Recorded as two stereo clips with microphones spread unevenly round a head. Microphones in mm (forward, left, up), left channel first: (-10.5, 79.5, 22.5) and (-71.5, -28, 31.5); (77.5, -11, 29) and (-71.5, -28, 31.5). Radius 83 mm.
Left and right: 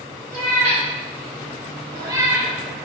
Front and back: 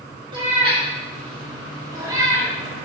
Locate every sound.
0.3 s a cat meowing: 120° right, 1.8 m; by 2.5 s 140° right, 0.8 m